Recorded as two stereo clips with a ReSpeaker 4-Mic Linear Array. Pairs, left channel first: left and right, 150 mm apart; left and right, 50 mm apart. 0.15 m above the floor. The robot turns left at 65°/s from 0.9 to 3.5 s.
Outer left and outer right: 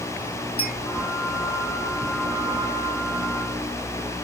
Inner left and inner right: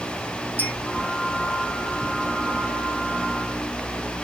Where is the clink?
40° left (ahead or behind), 3.5 m.